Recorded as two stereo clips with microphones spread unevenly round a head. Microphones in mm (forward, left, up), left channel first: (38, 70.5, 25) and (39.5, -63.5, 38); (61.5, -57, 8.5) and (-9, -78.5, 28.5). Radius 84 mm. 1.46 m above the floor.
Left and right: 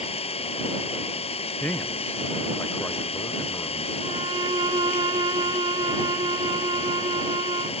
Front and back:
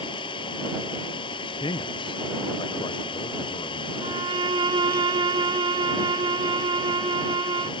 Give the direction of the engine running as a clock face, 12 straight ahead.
10 o'clock.